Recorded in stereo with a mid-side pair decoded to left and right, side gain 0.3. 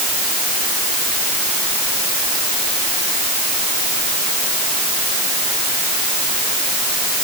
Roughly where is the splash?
I don't hear a splash.